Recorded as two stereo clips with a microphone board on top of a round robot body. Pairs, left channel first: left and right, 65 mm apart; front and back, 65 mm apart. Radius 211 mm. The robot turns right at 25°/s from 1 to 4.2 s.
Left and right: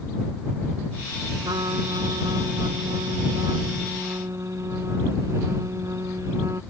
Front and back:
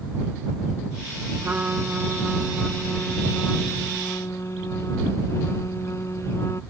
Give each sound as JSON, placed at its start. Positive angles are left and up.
{"t": 1.4, "sound": "a trumpet", "azimuth_deg": -115}